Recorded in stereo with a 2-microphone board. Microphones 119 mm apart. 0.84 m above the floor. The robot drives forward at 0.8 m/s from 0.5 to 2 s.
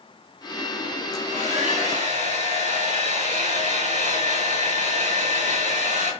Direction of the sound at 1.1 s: 75° right (ahead or behind).